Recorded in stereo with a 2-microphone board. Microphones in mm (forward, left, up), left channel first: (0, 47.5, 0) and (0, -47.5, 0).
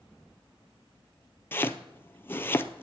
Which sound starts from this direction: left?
Chopping, at 1.5 s.